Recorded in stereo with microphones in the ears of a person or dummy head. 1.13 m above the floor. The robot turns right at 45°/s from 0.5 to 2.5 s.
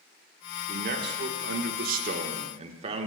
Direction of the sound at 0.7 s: 125° right.